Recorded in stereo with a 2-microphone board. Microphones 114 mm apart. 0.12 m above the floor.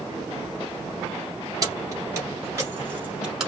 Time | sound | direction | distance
1.6 | keys jangling | 30° right (ahead or behind) | 1.8 m